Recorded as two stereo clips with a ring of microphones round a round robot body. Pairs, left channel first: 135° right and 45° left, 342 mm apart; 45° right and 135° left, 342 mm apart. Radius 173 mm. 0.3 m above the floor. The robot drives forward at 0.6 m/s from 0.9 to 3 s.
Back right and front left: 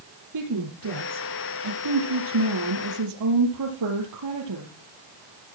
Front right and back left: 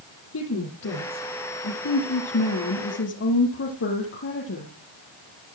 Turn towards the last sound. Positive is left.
turn(degrees=10)